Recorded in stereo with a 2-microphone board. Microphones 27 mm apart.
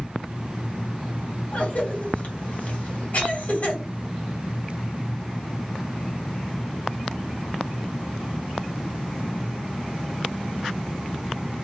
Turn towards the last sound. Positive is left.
turn(degrees=50)  # may be behind; listen again after turning